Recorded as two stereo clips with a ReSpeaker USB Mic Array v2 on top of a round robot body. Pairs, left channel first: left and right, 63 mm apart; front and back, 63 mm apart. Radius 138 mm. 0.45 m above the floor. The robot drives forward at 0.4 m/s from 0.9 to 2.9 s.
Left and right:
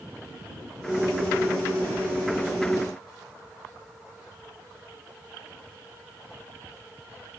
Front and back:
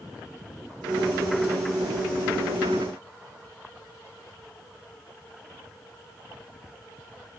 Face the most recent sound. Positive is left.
No sound to turn to.